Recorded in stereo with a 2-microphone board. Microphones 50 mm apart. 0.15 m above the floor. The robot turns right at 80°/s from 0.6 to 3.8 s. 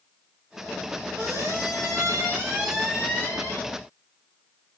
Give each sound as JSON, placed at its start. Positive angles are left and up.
{"t": 1.2, "sound": "a squeak", "azimuth_deg": -135, "distance_m": 6.5}